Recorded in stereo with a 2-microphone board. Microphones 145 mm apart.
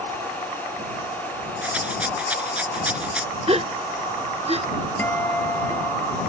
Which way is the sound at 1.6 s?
10° right (ahead or behind).